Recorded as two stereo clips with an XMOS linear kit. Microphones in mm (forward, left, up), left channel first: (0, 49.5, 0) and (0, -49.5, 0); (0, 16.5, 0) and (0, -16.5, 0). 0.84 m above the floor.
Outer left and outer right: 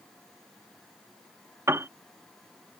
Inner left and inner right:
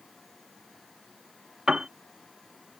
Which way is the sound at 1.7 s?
25° right (ahead or behind).